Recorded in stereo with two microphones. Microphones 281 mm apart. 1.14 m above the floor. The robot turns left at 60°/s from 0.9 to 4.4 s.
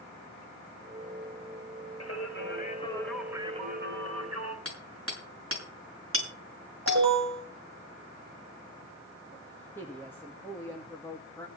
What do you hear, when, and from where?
2.0 s singing: 70° left, 2.0 m; by 4.5 s 75° right, 2.0 m
4.7 s hammering: 50° right (ahead or behind), 5.5 m
6.9 s an alarm: 60° right (ahead or behind), 7.5 m
9.3 s a woman speaking: 5° left (ahead or behind), 1.8 m